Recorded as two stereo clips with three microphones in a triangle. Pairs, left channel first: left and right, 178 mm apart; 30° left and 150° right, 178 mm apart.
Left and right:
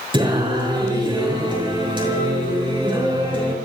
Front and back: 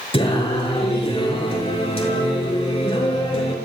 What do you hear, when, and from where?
0.1 s singing: 25° right, 6 m